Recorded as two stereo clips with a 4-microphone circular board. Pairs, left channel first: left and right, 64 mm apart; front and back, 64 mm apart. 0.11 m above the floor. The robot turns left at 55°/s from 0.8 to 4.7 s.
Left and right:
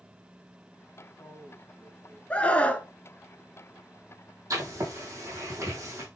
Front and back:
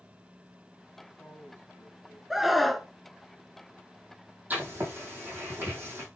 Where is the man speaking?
60° left, 6 m; by 2.2 s 5° right, 6 m.